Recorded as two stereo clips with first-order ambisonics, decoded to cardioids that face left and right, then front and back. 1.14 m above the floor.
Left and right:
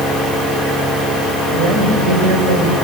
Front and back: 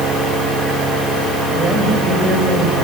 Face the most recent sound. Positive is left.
turn(degrees=-115)